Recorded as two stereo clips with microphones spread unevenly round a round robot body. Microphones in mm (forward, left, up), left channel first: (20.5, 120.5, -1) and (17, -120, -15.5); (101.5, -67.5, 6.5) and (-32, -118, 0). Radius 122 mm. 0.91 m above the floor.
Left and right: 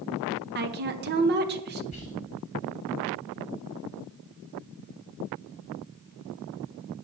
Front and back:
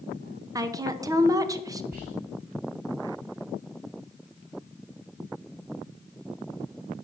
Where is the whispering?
150° left, 3.5 m.